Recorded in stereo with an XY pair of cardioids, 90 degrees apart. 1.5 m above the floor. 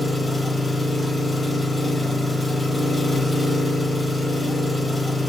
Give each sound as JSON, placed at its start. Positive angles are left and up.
{"t": 0.0, "sound": "an engine running", "azimuth_deg": 20, "distance_m": 4.5}